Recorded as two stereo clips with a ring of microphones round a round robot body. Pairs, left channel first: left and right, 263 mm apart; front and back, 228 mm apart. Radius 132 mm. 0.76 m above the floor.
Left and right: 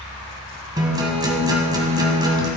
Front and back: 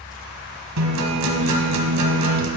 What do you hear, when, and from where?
0.8 s a guitar: 165° right, 1.6 m